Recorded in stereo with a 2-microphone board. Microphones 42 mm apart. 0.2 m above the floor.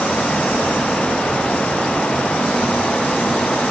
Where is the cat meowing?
No cat meowing in this recording.